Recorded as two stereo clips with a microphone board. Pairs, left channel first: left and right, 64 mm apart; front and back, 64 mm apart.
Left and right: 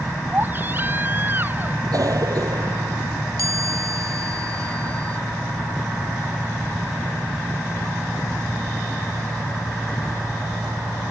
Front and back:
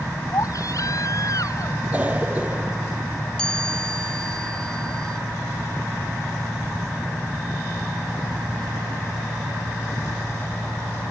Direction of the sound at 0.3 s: 30° right.